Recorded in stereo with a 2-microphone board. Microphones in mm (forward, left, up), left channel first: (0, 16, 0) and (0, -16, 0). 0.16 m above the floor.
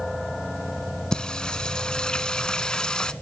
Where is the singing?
25° left (ahead or behind), 0.7 m.